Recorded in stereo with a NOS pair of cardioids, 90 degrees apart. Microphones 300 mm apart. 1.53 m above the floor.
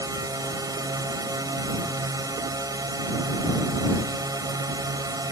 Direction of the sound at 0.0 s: 10° right.